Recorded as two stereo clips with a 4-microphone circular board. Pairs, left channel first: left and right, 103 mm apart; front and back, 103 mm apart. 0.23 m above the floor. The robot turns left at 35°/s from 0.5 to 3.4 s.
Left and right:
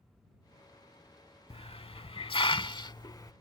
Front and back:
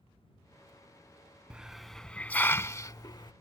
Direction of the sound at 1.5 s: 100° left.